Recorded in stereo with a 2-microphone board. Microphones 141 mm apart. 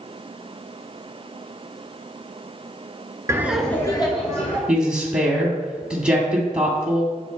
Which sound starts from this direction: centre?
A woman speaking, at 4.7 s.